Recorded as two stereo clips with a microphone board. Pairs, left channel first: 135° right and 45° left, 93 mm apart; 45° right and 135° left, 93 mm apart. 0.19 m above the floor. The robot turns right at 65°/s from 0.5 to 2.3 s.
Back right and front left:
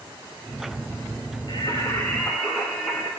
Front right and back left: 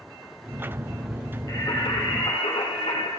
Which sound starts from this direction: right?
Singing, at 1.5 s.